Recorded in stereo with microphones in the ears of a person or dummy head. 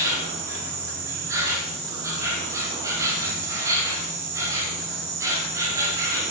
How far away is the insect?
About 5 m.